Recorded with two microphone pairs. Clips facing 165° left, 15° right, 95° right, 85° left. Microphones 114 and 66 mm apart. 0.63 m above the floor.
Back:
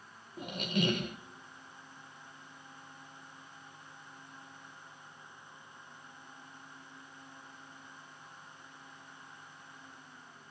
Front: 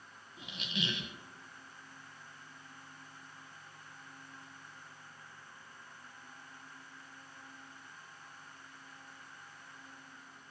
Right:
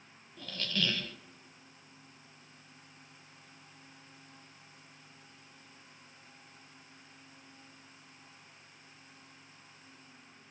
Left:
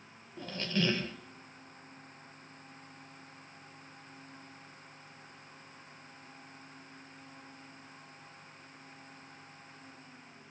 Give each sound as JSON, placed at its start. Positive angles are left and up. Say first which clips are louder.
{"t": 0.4, "sound": "a squeak", "louder": "back 8 dB, left 3 dB", "azimuth_deg": 145, "distance_m": 0.7}